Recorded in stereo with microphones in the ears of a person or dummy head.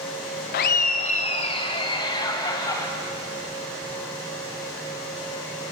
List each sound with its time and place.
0.5 s laughter: 50° left (ahead or behind), 0.7 m; by 2.9 s 20° left (ahead or behind), 2 m